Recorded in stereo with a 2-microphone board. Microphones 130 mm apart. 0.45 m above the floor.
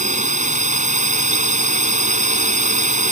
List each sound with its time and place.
0.0 s a drone: 70° right (ahead or behind)